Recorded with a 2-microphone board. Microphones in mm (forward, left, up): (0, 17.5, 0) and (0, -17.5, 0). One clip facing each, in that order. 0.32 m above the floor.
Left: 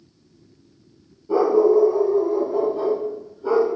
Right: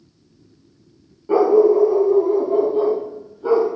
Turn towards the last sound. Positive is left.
turn(degrees=-40)  # may be behind; listen again after turning